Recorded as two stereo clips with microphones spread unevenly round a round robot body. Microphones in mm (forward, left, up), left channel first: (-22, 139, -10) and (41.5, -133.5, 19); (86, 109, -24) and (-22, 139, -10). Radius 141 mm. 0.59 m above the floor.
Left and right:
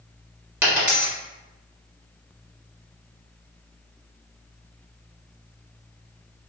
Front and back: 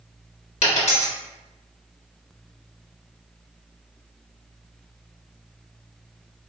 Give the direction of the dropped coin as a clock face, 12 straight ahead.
12 o'clock.